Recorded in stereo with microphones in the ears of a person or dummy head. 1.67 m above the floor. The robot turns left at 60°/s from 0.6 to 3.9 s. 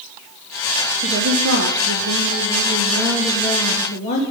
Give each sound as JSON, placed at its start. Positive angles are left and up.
{"t": 1.0, "sound": "a woman speaking", "azimuth_deg": -40, "distance_m": 3.0}